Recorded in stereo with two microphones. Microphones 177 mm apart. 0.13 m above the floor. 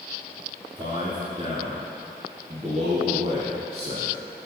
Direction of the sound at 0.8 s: 30° right (ahead or behind).